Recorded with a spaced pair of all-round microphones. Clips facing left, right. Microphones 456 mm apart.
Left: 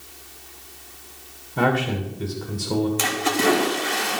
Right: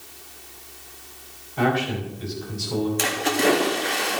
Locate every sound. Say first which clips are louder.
1.6 s a man speaking: left 1 dB; 65° left (ahead or behind), 2 m
3.0 s a splash: even; 20° left (ahead or behind), 2.5 m